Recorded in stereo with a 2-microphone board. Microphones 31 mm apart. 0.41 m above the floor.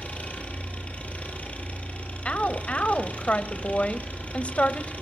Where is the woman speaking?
45° left (ahead or behind), 1.8 m.